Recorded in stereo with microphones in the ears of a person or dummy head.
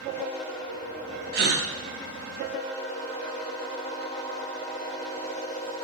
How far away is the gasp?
About 0.5 m.